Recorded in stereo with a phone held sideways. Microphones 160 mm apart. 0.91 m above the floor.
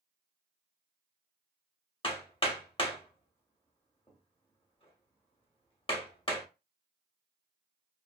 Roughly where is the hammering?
Left.